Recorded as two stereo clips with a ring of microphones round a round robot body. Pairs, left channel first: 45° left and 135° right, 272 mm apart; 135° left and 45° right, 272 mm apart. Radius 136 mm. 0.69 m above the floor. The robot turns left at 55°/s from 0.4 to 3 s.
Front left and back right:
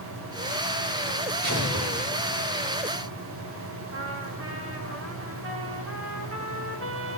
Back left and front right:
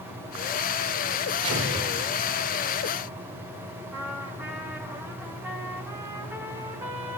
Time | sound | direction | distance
1.4 | an explosion | 80° right | 2.5 m
3.9 | a trumpet | 125° right | 1.5 m